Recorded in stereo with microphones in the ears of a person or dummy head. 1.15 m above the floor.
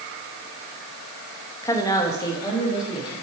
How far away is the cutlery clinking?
No cutlery clinking in this recording.